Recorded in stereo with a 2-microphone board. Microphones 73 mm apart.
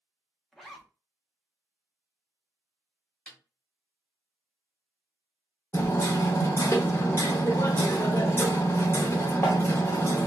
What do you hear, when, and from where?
0.5 s a zipper: 5° left (ahead or behind), 0.7 m
3.3 s a snare drum: 15° left (ahead or behind), 1.1 m
5.7 s hammering: 35° left (ahead or behind), 0.8 m